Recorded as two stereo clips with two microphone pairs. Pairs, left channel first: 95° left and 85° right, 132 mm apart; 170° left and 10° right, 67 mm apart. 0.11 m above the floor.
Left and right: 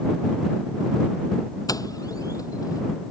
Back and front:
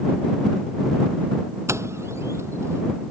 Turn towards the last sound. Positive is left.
turn(degrees=35)